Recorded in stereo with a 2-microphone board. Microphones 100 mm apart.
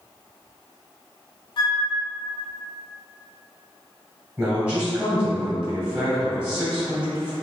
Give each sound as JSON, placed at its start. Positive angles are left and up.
{"t": 1.6, "sound": "a flute", "side_deg": 55, "distance_m": 0.6}
{"t": 4.4, "sound": "a man speaking", "side_deg": -20, "distance_m": 1.9}